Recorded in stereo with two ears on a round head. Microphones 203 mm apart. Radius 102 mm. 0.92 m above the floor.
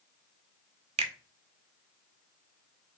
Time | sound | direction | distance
1.0 | a finger snap | 25° right (ahead or behind) | 0.9 m